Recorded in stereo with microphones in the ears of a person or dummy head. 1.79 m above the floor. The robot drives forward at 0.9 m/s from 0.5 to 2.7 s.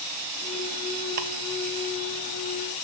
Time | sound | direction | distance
1.2 | ticking | 45° right (ahead or behind) | 0.9 m